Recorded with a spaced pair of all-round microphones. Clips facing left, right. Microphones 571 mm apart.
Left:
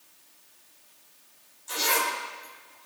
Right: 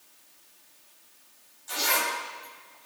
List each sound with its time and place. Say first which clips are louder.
1.7 s a zipper: left 2 dB; 15° right (ahead or behind), 7 m